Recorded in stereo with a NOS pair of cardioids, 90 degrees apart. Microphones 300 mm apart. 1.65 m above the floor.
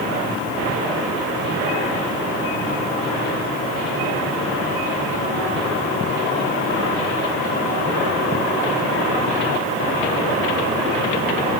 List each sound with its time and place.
Only background noise.